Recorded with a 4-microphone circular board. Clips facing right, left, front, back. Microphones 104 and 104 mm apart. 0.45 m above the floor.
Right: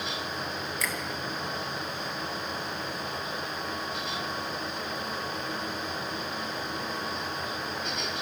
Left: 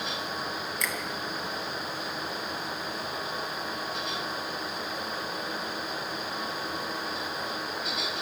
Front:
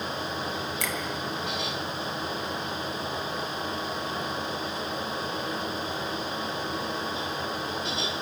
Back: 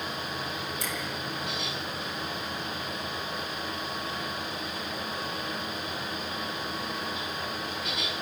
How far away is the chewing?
No chewing in this recording.